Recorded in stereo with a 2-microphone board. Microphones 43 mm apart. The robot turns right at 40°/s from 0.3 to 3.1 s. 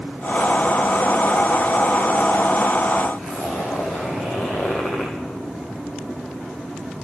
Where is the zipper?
55° left (ahead or behind), 5 m.